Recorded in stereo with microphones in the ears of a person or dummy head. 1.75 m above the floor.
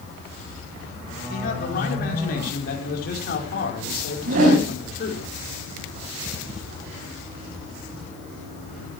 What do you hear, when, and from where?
1.3 s a man speaking: 55° left (ahead or behind), 5.5 m
4.2 s a whoosh: 55° right (ahead or behind), 5.5 m